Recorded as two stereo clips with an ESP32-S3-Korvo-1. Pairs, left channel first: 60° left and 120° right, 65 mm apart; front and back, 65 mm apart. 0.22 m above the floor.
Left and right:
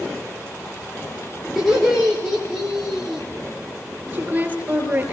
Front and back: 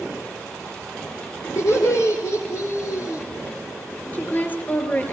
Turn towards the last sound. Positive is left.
turn(degrees=-60)